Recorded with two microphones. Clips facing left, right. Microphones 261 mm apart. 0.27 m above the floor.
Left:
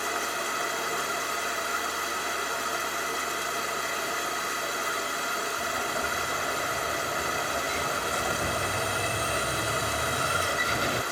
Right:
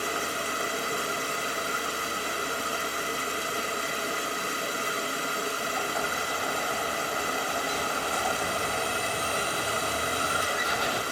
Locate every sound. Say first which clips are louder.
0.0 s running water: right 1 dB; 30° right (ahead or behind), 1.5 m
5.6 s an explosion: right 1 dB; 30° left (ahead or behind), 1.1 m